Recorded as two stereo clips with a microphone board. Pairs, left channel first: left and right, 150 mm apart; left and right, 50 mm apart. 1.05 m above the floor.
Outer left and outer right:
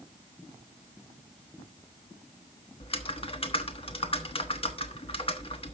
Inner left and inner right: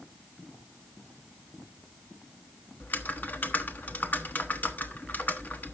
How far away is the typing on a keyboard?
About 1.2 m.